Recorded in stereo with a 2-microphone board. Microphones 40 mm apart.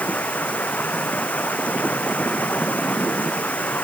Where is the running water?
40° left (ahead or behind).